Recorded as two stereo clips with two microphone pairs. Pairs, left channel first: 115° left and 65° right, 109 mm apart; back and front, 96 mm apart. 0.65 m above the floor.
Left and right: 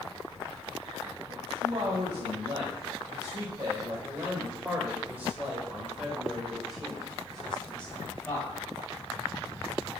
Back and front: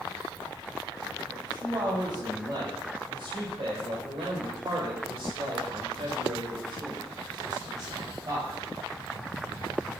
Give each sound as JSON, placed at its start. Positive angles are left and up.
{"t": 1.3, "sound": "a man speaking", "azimuth_deg": -40, "distance_m": 2.5}